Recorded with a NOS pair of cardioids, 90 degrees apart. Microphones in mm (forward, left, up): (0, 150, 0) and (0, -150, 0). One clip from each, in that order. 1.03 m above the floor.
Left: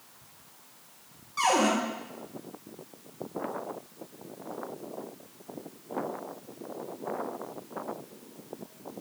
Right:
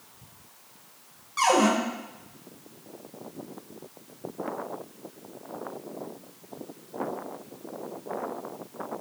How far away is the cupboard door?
About 2.5 m.